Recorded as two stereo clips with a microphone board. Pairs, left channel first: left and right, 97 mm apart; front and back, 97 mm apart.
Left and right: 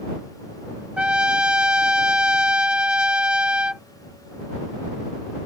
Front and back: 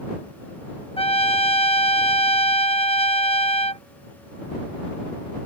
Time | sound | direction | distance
1.0 | a trumpet | 10° right | ?